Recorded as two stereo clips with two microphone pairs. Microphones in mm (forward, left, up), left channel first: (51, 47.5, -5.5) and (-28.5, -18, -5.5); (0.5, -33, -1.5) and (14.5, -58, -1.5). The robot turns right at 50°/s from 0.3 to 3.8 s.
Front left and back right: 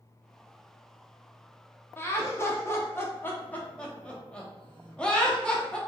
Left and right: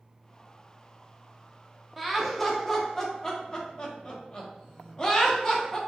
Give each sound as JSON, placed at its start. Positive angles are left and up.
{"t": 2.0, "sound": "laughter", "azimuth_deg": 15, "distance_m": 0.6}